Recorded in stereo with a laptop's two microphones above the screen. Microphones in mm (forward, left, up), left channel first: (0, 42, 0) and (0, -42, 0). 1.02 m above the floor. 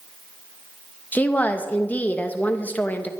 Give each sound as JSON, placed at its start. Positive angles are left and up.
{"t": 1.1, "sound": "a woman speaking", "side_deg": 20, "distance_m": 0.8}